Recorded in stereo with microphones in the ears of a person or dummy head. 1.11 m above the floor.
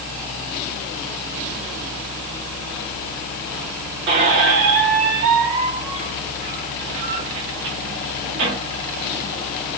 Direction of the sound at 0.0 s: 50° left (ahead or behind).